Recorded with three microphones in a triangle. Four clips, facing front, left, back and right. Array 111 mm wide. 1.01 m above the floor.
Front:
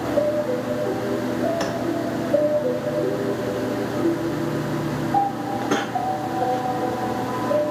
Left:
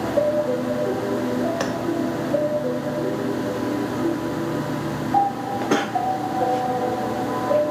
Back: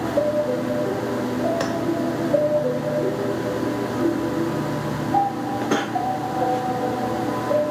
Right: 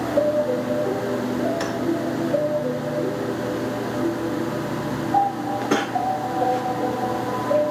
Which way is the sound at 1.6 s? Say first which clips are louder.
Left 1 dB, back 1 dB; 125° left.